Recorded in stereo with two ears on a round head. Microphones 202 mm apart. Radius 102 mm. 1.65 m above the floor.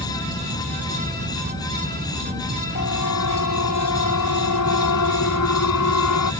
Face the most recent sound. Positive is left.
turn(degrees=90)